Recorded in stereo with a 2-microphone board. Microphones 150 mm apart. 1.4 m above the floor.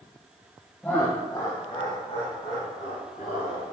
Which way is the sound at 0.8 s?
10° left (ahead or behind).